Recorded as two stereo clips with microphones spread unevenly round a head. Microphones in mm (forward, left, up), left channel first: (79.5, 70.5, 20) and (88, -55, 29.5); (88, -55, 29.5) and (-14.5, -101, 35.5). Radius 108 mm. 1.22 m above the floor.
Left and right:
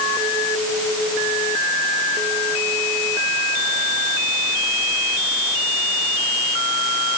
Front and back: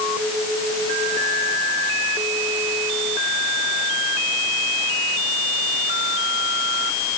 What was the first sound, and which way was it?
Only background noise.